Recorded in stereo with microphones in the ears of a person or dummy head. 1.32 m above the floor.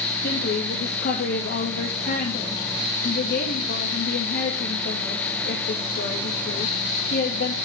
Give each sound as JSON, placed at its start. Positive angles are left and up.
{"t": 0.2, "sound": "a woman speaking", "side_deg": 50, "distance_m": 2.0}